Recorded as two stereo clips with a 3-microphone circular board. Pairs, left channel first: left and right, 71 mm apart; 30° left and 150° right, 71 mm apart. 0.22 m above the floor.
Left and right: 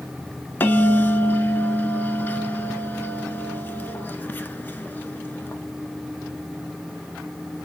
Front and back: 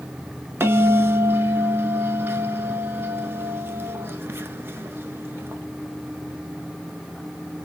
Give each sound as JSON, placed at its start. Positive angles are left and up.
{"t": 0.6, "sound": "a bell", "azimuth_deg": 155, "distance_m": 0.5}